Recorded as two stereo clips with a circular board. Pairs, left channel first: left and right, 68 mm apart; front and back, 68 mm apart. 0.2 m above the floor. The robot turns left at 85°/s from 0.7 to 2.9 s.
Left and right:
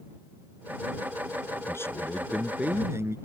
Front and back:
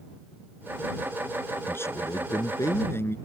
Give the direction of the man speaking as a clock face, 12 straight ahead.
10 o'clock.